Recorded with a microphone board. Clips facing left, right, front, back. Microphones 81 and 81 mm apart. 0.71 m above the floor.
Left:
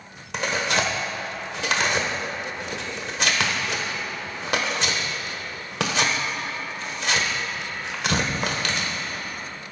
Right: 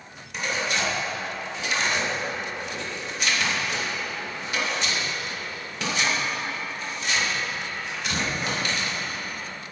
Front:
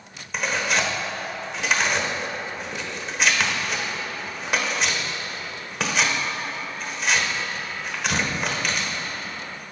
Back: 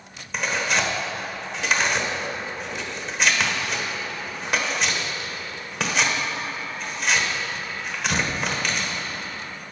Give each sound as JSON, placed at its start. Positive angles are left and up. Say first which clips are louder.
{"t": 0.3, "sound": "tearing paper", "louder": "left 3 dB, even", "azimuth_deg": 90, "distance_m": 1.4}